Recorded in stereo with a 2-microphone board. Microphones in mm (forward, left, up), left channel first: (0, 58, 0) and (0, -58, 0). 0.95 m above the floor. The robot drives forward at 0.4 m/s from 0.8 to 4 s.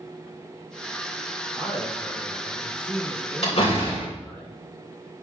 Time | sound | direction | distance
1.5 | a man speaking | 50° right (ahead or behind) | 3.5 m
3.4 | a door slam | 55° left (ahead or behind) | 3 m